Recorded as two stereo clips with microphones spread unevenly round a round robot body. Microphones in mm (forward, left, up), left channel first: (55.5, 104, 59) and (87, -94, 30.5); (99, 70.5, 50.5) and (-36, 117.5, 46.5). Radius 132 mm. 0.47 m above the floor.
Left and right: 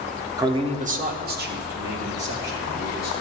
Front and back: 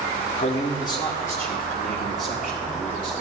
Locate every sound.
0.4 s a man speaking: 25° right, 0.9 m; by 3.2 s 115° right, 3 m